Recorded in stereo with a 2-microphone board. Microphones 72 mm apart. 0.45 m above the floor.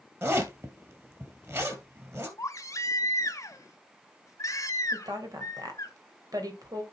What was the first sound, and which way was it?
A zipper, 40° right (ahead or behind).